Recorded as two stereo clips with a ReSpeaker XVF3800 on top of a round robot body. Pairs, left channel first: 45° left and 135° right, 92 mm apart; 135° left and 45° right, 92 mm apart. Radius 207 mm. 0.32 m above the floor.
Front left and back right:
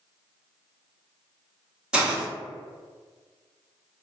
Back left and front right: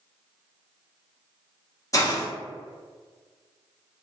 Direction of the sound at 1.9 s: 150° left.